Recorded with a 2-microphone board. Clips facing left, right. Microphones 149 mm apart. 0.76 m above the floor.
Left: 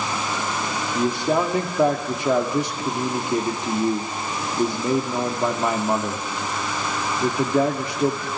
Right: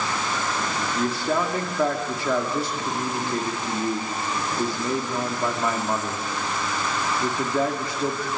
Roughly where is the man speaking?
Left.